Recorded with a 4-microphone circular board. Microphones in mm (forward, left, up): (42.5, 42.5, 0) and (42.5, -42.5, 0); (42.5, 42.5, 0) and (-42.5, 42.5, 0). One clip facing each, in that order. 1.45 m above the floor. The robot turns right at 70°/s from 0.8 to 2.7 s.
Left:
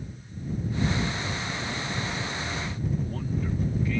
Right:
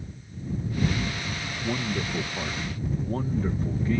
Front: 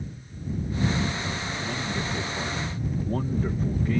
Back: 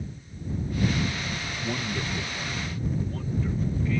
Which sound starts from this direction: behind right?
A man speaking, at 1.6 s.